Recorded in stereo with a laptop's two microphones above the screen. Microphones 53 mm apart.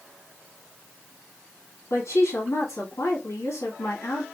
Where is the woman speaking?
65° left (ahead or behind), 1.5 m.